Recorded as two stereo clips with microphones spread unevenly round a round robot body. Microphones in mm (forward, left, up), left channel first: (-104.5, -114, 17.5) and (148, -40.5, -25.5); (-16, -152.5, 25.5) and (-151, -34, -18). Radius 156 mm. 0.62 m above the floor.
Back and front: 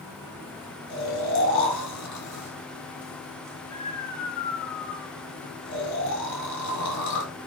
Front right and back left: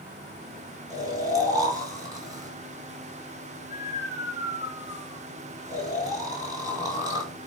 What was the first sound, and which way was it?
Snoring, 150° right.